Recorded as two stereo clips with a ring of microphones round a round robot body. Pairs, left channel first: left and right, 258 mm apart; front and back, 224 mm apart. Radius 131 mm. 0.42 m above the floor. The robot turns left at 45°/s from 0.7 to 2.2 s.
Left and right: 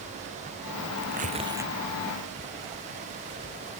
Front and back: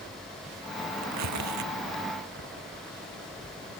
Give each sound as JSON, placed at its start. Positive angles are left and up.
{"t": 1.0, "sound": "tearing paper", "azimuth_deg": -140}